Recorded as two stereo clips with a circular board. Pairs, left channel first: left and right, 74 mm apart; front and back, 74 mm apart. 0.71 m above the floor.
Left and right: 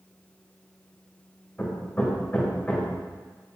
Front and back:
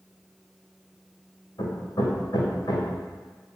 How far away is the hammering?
About 3 m.